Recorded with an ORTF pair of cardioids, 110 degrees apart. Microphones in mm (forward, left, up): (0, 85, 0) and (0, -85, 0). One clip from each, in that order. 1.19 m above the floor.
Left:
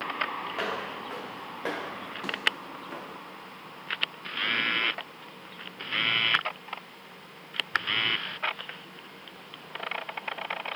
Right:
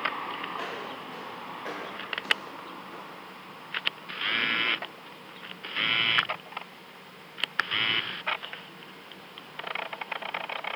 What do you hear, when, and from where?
0.5 s footsteps: 60° left, 6.5 m; by 3.2 s 70° left, 4.5 m